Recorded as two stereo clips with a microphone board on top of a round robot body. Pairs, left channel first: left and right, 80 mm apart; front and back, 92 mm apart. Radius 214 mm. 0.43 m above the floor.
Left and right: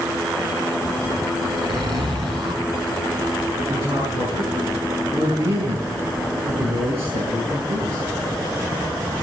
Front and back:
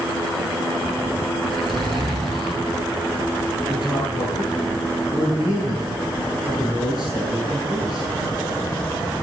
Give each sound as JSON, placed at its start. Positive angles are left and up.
{"t": 1.4, "sound": "a zipper", "azimuth_deg": -85, "distance_m": 8.0}
{"t": 3.7, "sound": "a man speaking", "azimuth_deg": -95, "distance_m": 7.0}